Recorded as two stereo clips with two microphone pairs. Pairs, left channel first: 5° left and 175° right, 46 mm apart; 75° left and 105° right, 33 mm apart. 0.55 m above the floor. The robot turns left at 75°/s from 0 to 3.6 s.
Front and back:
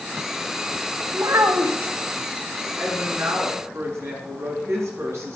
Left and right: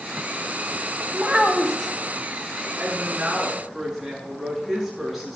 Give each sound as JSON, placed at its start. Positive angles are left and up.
{"t": 1.1, "sound": "a child speaking", "azimuth_deg": -150, "distance_m": 3.0}
{"t": 2.8, "sound": "a woman speaking", "azimuth_deg": -130, "distance_m": 7.5}